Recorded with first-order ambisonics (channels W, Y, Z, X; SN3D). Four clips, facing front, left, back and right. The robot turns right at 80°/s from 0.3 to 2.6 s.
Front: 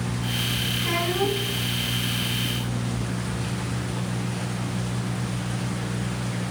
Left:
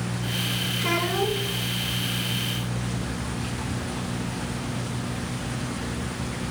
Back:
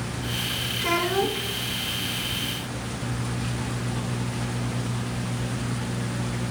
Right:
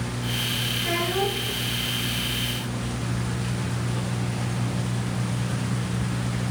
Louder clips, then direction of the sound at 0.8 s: Left 1 dB, back 3 dB; 140° left.